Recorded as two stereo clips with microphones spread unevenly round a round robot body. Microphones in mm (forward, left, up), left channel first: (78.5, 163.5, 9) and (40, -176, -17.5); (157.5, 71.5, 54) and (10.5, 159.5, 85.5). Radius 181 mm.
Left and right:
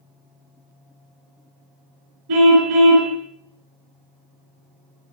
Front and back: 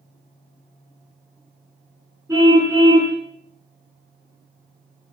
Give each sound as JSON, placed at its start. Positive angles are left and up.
{"t": 2.3, "sound": "a car horn", "azimuth_deg": -130, "distance_m": 3.0}